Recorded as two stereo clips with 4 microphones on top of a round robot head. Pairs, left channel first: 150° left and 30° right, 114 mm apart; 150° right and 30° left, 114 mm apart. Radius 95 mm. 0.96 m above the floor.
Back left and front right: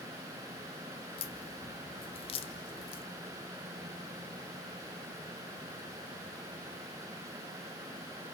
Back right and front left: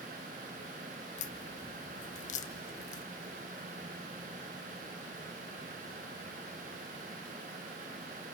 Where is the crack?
170° right, 0.7 m.